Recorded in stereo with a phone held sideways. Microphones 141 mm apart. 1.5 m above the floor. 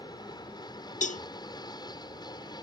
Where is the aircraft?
30° left (ahead or behind).